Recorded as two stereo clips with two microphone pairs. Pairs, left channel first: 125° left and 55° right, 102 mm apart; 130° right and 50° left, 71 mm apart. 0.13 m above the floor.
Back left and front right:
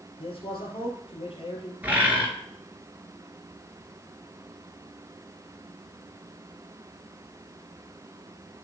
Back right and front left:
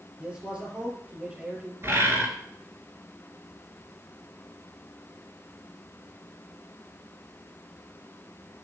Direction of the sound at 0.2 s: 125° left.